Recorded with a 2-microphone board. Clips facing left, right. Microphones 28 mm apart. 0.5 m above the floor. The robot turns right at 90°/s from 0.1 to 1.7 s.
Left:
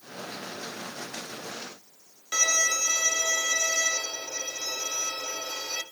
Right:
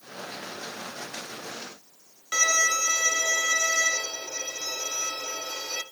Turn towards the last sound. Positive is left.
turn(degrees=-15)  # may be behind; listen again after turning